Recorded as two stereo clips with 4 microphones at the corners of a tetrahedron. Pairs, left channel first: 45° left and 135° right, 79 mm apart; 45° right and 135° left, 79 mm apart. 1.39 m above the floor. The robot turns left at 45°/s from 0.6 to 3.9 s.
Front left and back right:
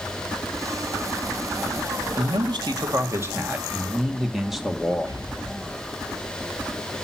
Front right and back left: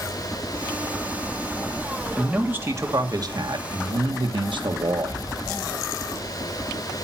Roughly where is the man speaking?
Behind right.